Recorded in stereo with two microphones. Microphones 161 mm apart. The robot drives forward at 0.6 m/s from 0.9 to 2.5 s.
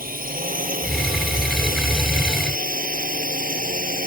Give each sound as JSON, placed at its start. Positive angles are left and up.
{"t": 0.0, "sound": "a drone", "side_deg": -60}